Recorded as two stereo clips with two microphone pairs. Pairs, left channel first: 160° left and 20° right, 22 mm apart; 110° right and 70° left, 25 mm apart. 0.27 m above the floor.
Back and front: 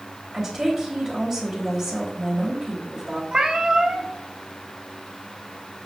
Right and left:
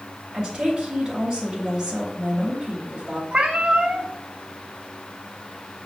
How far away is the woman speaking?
About 1.1 m.